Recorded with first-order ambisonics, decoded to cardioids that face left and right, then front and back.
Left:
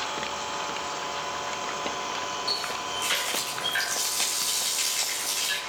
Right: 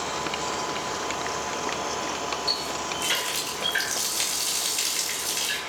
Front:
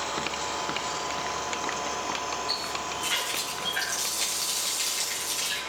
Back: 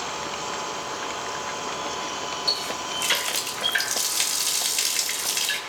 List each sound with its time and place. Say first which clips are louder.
2.5 s a running tap: right 1 dB, back 4 dB; 170° right, 3 m